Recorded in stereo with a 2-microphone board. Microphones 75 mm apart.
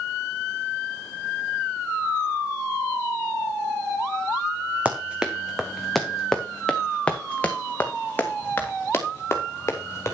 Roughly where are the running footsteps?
Centre.